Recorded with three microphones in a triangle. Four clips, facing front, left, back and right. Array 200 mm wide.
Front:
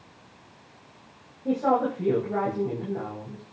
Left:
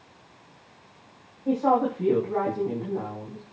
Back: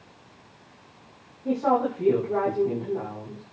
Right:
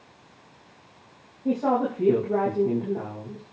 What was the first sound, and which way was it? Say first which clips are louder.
A woman speaking: left 1 dB, even; 70° right.